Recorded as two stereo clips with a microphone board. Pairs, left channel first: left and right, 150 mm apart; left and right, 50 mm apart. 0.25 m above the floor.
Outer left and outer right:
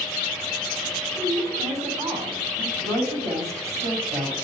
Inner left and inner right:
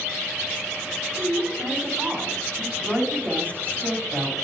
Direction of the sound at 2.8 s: 45° right (ahead or behind).